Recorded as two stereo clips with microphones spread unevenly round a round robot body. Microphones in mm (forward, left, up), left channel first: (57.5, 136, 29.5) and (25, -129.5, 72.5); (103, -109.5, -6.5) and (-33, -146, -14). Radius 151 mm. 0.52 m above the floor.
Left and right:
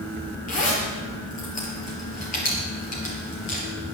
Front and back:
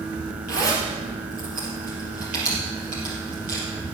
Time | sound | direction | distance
0.5 | a zipper | 145° left | 4 m